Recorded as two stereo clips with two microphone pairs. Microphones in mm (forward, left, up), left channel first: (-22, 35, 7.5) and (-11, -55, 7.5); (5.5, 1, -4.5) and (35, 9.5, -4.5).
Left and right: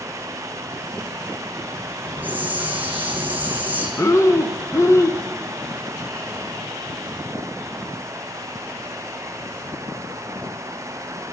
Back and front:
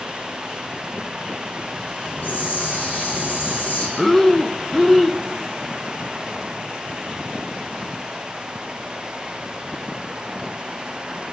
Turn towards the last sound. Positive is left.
turn(degrees=120)